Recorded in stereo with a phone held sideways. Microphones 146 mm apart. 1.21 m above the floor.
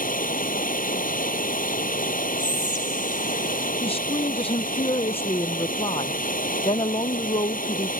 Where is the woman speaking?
40° left (ahead or behind).